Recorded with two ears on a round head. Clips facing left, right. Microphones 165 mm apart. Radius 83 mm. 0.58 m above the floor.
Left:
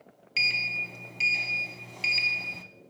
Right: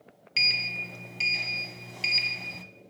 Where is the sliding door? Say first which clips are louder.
Even; 5° right (ahead or behind), 0.6 m.